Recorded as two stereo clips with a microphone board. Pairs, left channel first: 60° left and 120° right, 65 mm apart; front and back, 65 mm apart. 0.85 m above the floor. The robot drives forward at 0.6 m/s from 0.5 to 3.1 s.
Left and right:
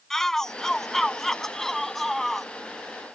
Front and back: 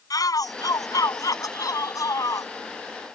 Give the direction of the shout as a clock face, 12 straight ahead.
1 o'clock.